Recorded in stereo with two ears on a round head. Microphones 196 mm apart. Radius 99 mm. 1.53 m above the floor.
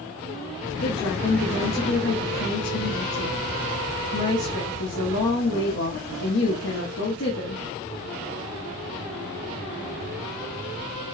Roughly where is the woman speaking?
Left.